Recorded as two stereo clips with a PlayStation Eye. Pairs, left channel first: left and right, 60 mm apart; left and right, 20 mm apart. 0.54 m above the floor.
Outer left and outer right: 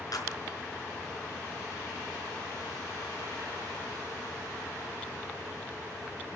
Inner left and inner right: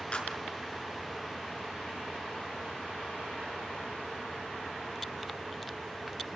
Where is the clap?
80° left, 5.5 m.